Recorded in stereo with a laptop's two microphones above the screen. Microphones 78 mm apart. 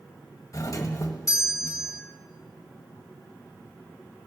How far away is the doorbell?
About 1.6 m.